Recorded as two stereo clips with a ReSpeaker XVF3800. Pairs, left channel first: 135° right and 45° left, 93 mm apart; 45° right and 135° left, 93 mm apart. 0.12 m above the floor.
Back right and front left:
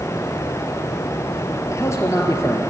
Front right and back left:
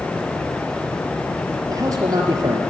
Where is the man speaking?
175° left, 3 m.